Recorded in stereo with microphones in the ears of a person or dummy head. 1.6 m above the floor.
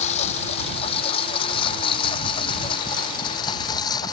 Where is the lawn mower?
40° left (ahead or behind); by 4.1 s 25° left (ahead or behind).